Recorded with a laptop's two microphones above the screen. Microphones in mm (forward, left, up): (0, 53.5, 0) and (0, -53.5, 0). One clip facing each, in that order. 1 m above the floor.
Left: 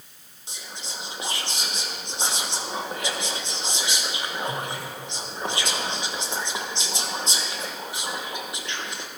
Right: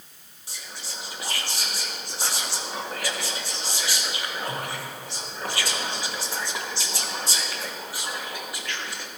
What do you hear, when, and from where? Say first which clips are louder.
0.5 s whispering: left 2 dB; 20° left (ahead or behind), 0.9 m